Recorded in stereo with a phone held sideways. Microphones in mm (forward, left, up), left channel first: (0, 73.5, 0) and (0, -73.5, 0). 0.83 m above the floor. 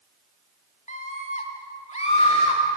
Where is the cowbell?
I don't hear a cowbell.